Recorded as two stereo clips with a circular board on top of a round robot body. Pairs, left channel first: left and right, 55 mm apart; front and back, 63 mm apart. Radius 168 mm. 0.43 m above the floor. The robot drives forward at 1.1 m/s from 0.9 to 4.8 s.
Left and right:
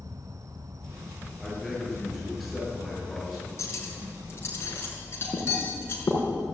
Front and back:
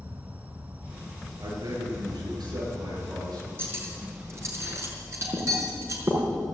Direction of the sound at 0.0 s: 110° right.